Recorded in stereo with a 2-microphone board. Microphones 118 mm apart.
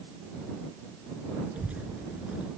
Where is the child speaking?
15° right (ahead or behind).